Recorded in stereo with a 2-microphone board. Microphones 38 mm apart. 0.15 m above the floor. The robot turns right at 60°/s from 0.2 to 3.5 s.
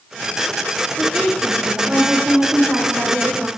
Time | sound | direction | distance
1.0 | a woman speaking | 175° left | 5.5 m